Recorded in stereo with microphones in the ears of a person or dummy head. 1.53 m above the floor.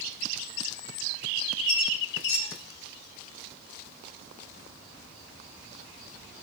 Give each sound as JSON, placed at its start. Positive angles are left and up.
{"t": 1.7, "sound": "a squeak", "side_deg": 65, "distance_m": 4.0}